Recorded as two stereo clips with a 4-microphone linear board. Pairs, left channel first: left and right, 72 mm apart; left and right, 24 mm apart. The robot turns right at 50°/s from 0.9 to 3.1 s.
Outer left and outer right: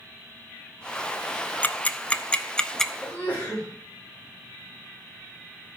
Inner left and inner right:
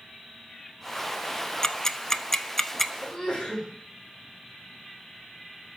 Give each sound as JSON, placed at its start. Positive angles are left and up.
{"t": 1.6, "sound": "ticking", "side_deg": 25, "distance_m": 0.6}
{"t": 3.0, "sound": "a sneeze", "side_deg": 20, "distance_m": 4.0}